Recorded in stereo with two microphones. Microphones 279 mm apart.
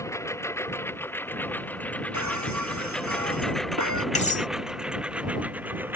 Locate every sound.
0.0 s a lawn mower: 10° left (ahead or behind); by 6.0 s 5° right (ahead or behind)
2.1 s breaking glass: 80° right
4.2 s cutlery clinking: 25° left (ahead or behind)